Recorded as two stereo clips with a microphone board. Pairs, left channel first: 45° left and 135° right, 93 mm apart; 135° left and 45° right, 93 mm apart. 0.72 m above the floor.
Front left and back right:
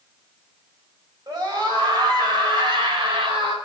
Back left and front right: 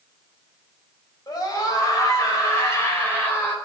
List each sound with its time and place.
1.3 s a scream: straight behind, 4.5 m; by 3.6 s 155° right, 4 m